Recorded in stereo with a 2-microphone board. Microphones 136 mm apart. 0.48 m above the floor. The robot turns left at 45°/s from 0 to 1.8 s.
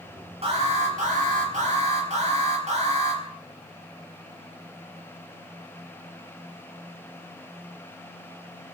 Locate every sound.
0.4 s an alarm: 50° right, 4.5 m; by 3.2 s 115° right, 4.5 m